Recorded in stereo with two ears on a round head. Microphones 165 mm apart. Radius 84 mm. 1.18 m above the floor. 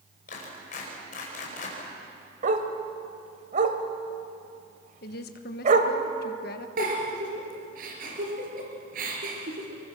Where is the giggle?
45° right (ahead or behind), 4.5 m.